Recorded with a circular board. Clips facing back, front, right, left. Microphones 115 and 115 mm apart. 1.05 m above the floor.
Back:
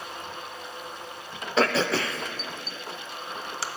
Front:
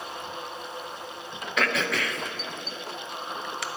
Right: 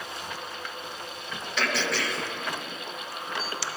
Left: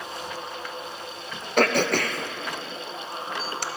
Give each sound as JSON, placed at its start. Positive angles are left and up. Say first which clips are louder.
{"t": 1.6, "sound": "throat clearing", "louder": "back 4 dB, left 8 dB", "azimuth_deg": 125, "distance_m": 0.6}